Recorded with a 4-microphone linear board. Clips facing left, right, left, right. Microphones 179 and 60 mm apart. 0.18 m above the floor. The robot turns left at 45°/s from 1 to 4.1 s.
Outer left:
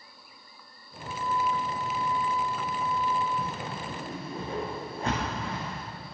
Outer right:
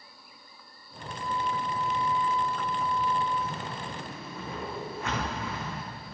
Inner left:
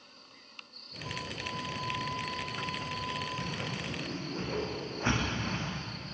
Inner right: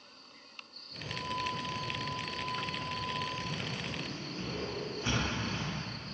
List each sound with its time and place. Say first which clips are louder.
1.0 s a flute: outer left 3 dB, inner right 3 dB; 80° left, 6.5 m; by 3.3 s 20° right, 6.5 m
3.4 s a whoosh: even, inner left 1 dB; 65° left (ahead or behind), 9.5 m; by 6.1 s 30° left (ahead or behind), 9.5 m